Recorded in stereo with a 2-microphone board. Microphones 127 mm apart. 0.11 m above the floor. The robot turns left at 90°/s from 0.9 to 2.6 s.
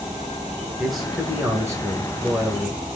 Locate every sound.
0.8 s a man speaking: centre (ahead or behind), 1.4 m; by 2.8 s 15° right (ahead or behind), 1.4 m